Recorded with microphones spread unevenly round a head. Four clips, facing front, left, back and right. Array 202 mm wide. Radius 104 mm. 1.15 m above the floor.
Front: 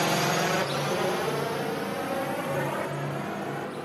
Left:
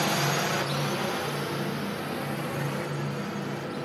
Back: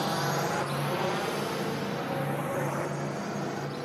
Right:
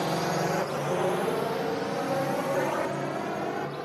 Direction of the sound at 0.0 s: 25° right.